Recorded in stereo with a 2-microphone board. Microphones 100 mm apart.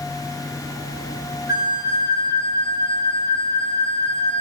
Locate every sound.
1.5 s a flute: 35° right (ahead or behind), 1.5 m